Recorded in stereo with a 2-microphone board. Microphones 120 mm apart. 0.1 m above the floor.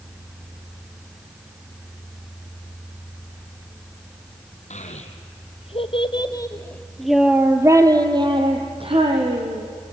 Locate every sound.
4.7 s a child speaking: 70° left (ahead or behind), 3 m; by 9.7 s 55° right (ahead or behind), 4 m